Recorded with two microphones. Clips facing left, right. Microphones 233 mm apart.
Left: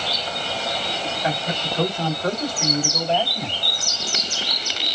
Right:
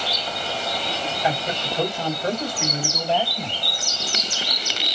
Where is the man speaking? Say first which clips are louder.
Right 1 dB; 25° right (ahead or behind), 1.7 m; by 3.6 s 5° left (ahead or behind), 1.9 m.